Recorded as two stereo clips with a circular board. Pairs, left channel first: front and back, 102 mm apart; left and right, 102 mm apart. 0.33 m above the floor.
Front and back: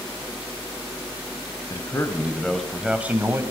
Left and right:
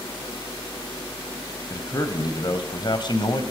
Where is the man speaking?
45° left, 1.9 m; by 3.4 s 120° left, 1.9 m.